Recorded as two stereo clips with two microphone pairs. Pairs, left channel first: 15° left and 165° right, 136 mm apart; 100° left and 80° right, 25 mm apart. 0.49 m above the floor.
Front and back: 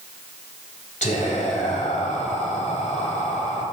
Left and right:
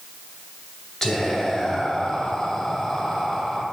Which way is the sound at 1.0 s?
25° left.